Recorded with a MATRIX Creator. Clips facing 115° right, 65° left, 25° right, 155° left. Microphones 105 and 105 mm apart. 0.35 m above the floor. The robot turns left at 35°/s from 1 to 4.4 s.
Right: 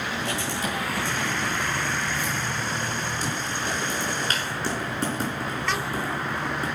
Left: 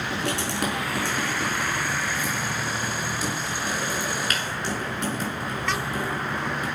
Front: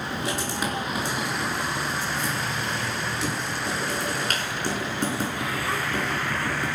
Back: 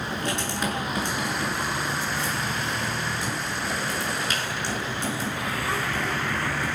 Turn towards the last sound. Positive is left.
turn(degrees=-55)